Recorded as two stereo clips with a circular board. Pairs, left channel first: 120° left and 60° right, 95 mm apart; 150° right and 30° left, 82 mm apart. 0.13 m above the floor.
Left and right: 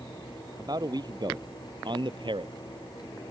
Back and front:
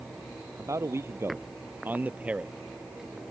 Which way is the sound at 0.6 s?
20° right.